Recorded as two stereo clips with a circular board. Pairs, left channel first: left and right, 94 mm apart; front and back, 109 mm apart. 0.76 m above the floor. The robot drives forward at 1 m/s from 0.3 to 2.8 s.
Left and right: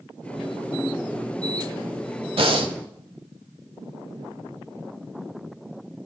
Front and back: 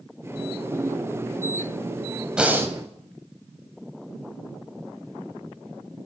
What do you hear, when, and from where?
2.4 s breathing: 100° right, 1.0 m; by 2.8 s 120° right, 1.1 m